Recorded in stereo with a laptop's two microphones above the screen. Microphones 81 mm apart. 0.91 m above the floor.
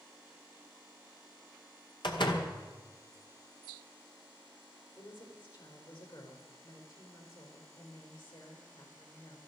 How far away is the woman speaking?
About 4 m.